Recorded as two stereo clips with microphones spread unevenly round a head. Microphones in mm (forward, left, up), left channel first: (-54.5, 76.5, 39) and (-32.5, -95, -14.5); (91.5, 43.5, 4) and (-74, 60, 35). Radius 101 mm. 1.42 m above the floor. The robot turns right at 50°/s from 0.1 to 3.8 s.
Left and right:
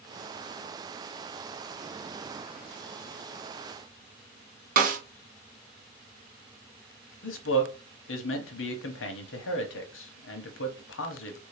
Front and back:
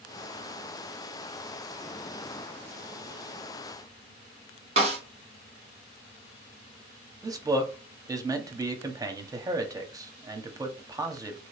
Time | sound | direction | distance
4.8 | a snare drum | 125° right | 1.0 m
7.2 | a man speaking | 105° left | 0.9 m